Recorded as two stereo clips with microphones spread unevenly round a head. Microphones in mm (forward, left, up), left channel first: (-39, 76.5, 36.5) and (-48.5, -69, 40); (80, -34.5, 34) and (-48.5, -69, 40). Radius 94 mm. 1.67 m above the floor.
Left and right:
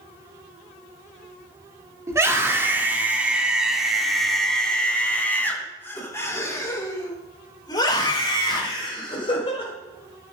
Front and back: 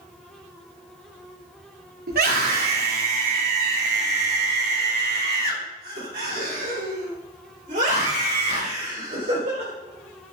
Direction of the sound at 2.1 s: 165° right.